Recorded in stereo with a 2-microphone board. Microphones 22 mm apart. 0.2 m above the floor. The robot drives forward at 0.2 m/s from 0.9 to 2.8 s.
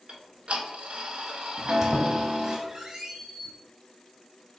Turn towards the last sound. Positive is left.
turn(degrees=-30)  # may be behind; listen again after turning